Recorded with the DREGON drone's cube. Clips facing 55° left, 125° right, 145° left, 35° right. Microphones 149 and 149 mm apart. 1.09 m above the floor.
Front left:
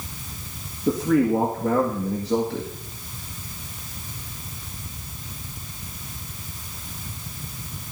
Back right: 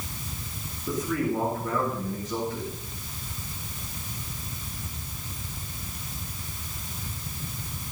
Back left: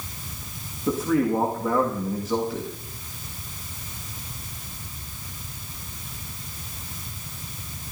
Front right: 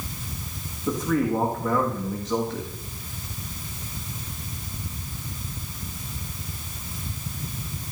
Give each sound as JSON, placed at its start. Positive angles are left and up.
{"t": 0.9, "sound": "a man speaking", "azimuth_deg": 65, "distance_m": 1.8}